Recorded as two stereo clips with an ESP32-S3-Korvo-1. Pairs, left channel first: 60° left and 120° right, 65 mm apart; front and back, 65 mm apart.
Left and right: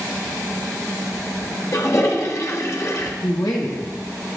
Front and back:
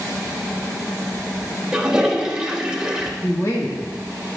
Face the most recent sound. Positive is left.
turn(degrees=40)